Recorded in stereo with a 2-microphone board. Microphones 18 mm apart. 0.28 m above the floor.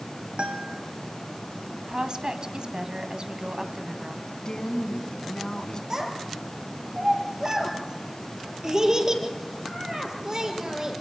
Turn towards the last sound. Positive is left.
turn(degrees=-35)  # may be behind; listen again after turning